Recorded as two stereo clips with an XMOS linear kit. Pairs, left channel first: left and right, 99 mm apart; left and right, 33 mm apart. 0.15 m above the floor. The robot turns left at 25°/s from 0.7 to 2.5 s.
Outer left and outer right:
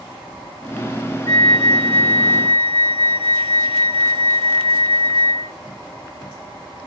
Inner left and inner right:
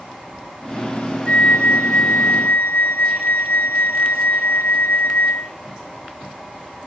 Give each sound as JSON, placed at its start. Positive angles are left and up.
{"t": 1.3, "sound": "a flute", "azimuth_deg": 130, "distance_m": 0.6}